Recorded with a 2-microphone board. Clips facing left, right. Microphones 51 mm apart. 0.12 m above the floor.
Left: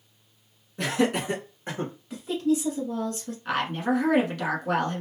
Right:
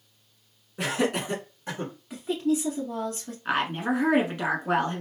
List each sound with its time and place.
0.8 s laughter: 15° right (ahead or behind), 1.6 m; by 1.9 s 35° left (ahead or behind), 1.9 m
2.1 s a woman speaking: 10° right (ahead or behind), 1.2 m
3.5 s a woman speaking: 20° right (ahead or behind), 1.1 m